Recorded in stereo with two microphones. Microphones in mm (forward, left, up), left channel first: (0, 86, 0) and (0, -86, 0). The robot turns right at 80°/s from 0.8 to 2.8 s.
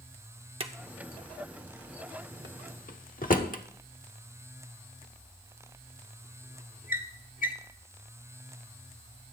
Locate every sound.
0.6 s a drawer: 30° right (ahead or behind), 1.1 m; by 7.5 s 50° left (ahead or behind), 1.1 m